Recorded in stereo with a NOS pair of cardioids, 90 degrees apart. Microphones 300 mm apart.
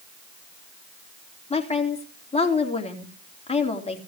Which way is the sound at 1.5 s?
20° left.